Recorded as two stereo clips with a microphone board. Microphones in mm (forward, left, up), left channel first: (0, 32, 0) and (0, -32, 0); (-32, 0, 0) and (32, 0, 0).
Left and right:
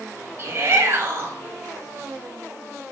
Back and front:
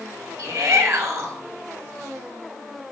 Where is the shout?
40° right, 4 m.